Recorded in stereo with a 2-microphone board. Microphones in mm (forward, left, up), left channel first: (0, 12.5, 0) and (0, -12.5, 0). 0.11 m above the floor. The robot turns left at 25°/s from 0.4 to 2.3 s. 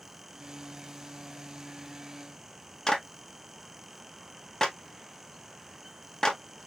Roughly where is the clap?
Left.